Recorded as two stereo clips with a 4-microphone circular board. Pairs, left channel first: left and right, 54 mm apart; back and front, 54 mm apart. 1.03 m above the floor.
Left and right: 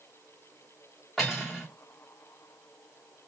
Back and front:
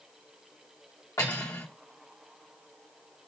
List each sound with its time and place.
1.2 s cutlery clinking: straight behind, 1.3 m